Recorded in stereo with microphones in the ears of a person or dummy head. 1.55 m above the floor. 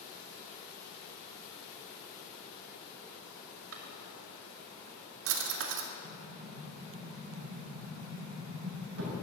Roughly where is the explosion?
Right.